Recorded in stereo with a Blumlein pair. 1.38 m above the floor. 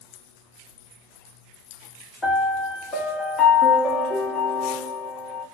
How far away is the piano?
About 0.8 m.